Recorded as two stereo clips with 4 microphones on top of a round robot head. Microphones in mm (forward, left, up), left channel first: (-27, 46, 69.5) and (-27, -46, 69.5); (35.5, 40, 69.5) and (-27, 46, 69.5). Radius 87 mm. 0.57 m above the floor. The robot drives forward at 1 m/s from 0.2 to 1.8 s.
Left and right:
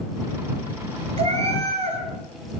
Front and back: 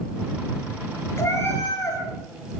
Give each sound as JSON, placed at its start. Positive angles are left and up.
{"t": 1.2, "sound": "a cat meowing", "azimuth_deg": -60, "distance_m": 5.5}